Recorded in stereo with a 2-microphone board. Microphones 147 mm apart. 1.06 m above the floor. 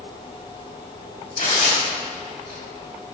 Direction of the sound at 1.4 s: 65° left (ahead or behind).